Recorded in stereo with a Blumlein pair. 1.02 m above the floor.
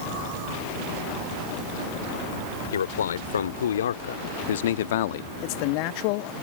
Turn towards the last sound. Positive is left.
turn(degrees=45)